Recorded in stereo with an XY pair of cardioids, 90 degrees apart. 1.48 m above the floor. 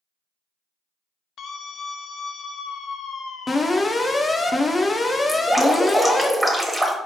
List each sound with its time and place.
1.4 s a scream: 65° left, 0.7 m
3.5 s an alarm: 35° left, 0.7 m
5.3 s dripping: 10° right, 1.0 m